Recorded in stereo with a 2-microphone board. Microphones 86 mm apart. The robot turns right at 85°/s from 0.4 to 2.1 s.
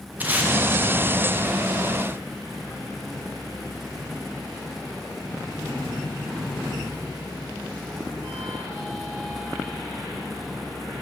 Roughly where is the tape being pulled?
Right.